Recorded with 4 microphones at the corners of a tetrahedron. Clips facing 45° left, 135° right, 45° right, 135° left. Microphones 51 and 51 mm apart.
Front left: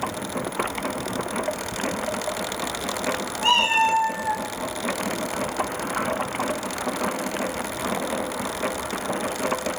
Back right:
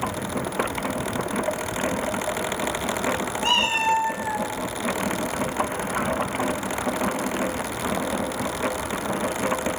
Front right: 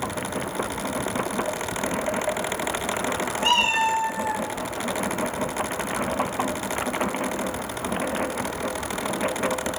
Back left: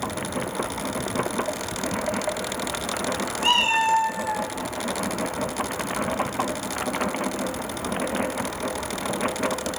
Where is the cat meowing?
80° left, 3 m; by 4.5 s 100° left, 3 m.